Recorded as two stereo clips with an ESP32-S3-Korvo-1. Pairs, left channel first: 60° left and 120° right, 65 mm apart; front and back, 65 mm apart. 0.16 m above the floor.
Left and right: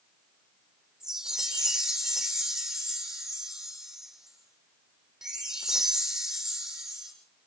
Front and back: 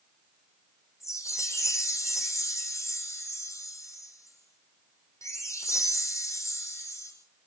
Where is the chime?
40° right, 7.5 m.